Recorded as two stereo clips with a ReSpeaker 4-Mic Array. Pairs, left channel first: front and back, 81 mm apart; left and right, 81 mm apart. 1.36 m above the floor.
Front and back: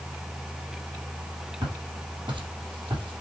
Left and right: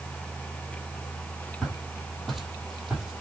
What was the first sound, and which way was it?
Footsteps, 170° left.